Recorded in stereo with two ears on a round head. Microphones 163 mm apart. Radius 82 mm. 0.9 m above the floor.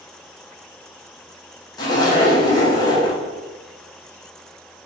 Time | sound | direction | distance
1.8 | a zipper | 20° left (ahead or behind) | 0.6 m